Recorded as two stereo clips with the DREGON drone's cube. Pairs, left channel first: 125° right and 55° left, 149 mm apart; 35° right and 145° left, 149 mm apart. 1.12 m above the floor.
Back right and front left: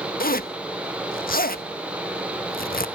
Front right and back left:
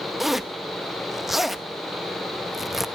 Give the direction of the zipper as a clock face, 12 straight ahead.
4 o'clock.